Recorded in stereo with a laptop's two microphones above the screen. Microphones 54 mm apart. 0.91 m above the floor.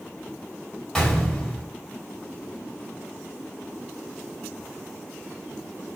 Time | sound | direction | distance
0.9 | a gunshot | 10° left (ahead or behind) | 2.5 m